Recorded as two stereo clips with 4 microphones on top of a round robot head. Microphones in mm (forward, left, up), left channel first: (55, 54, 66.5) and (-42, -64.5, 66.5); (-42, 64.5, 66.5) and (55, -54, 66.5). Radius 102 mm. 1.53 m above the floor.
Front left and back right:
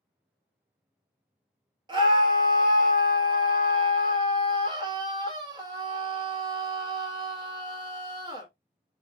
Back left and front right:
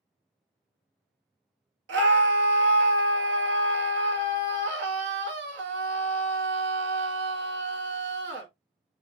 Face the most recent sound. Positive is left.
turn(degrees=-65)